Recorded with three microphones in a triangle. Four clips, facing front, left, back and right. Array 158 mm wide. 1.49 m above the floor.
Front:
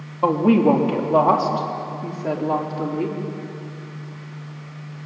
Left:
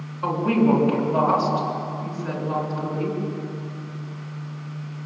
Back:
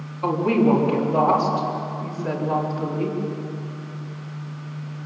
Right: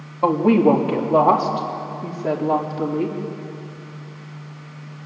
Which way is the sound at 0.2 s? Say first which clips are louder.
Right 5 dB, front 3 dB; 50° right.